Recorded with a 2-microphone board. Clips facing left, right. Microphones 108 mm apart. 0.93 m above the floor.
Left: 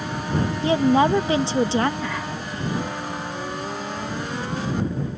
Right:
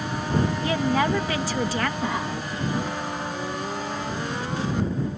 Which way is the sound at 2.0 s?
20° right (ahead or behind).